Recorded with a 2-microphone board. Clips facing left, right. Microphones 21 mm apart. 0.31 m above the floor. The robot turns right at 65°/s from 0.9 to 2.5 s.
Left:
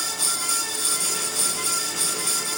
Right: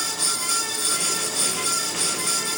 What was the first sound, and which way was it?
Only background noise.